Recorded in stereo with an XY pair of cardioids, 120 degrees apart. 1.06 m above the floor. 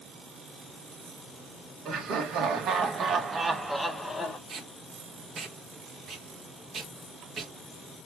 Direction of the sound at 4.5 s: 40° right.